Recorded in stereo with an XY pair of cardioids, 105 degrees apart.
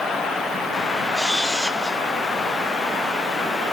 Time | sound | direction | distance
1.1 | a camera shutter | 5° left | 3 m